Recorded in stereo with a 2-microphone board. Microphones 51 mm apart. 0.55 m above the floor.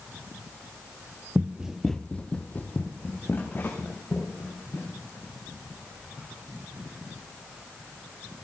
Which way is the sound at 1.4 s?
35° right (ahead or behind).